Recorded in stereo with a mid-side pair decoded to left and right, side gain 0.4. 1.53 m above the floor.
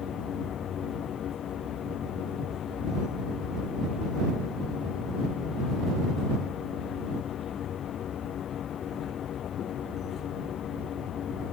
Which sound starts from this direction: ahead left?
A machine running, at 0.0 s.